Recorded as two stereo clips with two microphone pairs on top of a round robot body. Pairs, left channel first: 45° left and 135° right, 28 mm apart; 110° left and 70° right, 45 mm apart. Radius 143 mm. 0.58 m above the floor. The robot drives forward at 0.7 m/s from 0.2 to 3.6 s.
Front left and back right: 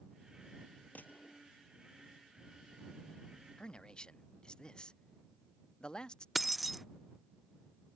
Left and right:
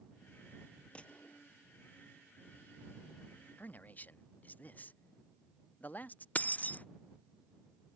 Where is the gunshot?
45° left.